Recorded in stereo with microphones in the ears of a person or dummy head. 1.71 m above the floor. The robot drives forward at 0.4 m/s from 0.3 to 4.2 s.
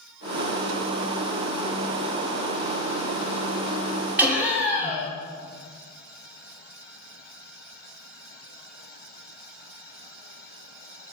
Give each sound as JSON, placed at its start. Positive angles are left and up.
{"t": 4.2, "sound": "laughter", "side_deg": -10, "distance_m": 1.0}